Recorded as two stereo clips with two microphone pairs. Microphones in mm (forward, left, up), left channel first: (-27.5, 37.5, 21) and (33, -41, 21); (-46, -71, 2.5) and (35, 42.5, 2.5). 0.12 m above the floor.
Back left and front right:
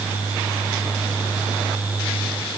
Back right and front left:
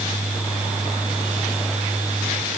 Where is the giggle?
No giggle in this recording.